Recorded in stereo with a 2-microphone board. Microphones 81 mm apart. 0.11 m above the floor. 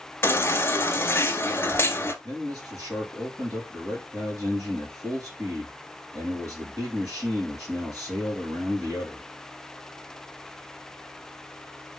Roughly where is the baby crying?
Left.